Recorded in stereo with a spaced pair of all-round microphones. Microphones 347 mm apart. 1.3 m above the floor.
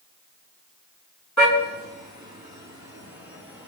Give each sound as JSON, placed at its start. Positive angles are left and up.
{"t": 1.4, "sound": "a car horn", "side_deg": 55, "distance_m": 5.0}